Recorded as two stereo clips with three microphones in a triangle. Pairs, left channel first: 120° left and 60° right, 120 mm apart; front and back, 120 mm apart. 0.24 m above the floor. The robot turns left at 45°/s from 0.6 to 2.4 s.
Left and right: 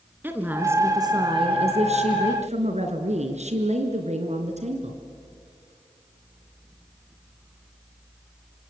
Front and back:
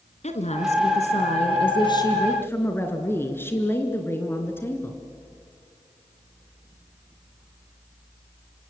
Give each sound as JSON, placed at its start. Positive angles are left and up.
{"t": 0.2, "sound": "a woman speaking", "azimuth_deg": 10, "distance_m": 3.0}